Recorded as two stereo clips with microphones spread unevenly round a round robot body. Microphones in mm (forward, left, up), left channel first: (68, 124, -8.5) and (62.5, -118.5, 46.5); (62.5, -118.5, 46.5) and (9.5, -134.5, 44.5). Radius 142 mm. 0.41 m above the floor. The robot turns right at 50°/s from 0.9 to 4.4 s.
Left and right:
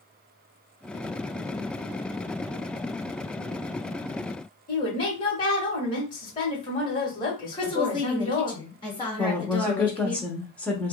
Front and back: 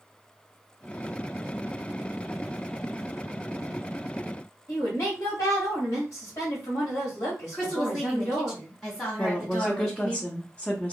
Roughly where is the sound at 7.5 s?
Left.